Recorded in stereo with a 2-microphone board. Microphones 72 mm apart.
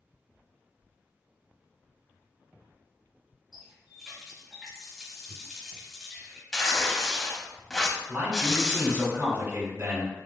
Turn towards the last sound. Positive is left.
turn(degrees=-35)  # may be behind; listen again after turning